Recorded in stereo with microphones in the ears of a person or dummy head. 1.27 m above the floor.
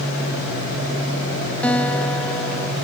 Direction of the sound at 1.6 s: 10° left (ahead or behind).